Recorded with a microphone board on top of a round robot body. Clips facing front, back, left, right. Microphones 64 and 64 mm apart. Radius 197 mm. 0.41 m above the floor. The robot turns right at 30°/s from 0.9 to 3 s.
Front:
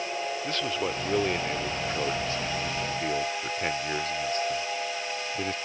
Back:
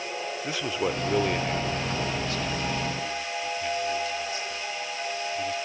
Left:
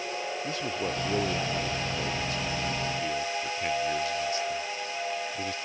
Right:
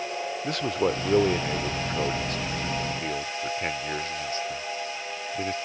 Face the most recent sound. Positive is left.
turn(degrees=-40)